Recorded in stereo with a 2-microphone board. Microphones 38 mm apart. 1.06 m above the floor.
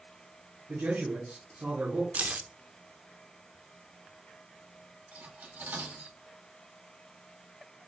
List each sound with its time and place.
0.7 s a man speaking: 70° right (ahead or behind), 2.5 m
2.1 s keys jangling: 45° right (ahead or behind), 0.5 m
5.1 s cutlery clinking: 70° right (ahead or behind), 1.7 m